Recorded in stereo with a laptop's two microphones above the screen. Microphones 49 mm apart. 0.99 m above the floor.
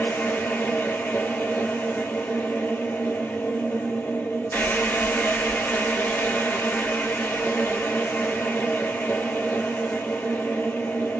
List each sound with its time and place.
0.0 s a machine running: 50° left (ahead or behind), 1.0 m